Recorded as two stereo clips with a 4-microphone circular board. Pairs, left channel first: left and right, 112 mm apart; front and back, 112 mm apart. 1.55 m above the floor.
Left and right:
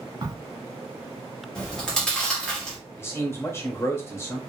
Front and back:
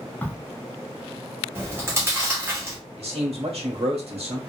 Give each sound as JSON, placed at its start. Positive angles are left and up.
{"t": 0.2, "sound": "a crack", "azimuth_deg": -70, "distance_m": 0.6}
{"t": 1.6, "sound": "chewing", "azimuth_deg": 165, "distance_m": 1.0}
{"t": 3.0, "sound": "a man speaking", "azimuth_deg": 155, "distance_m": 1.0}